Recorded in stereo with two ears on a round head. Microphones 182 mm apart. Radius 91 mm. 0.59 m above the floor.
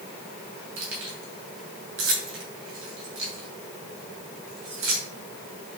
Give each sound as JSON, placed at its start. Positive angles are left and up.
{"t": 0.8, "sound": "keys jangling", "side_deg": -65, "distance_m": 2.5}